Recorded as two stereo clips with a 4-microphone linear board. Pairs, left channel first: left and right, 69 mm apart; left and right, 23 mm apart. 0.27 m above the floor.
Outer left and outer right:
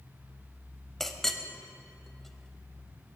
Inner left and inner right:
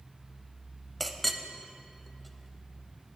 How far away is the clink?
About 0.6 m.